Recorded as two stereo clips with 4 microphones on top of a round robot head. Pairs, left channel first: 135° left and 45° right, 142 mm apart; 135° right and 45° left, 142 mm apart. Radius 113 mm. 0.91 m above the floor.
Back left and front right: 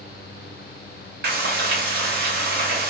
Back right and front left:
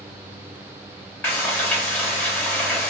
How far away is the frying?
About 0.8 m.